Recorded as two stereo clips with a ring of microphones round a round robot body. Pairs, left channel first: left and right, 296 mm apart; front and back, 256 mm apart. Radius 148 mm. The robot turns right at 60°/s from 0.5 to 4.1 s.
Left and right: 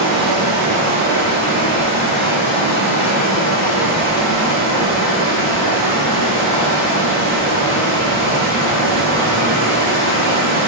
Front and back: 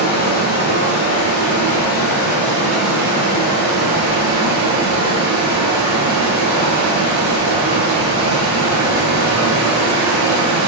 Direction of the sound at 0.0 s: 50° right.